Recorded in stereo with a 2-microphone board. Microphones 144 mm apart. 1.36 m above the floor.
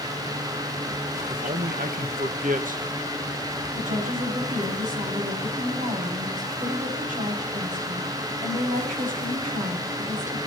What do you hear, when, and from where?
1.3 s a man speaking: 80° right, 1.9 m
3.8 s a woman speaking: 70° right (ahead or behind), 8.5 m